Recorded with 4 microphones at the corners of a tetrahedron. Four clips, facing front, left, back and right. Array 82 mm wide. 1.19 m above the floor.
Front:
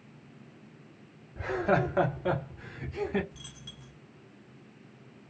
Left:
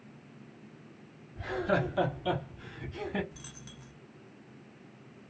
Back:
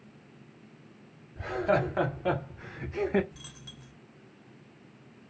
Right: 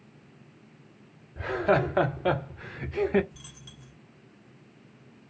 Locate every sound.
1.4 s laughter: 60° right, 1.1 m; by 3.2 s 115° right, 1.1 m
3.3 s a dropped coin: 130° left, 0.7 m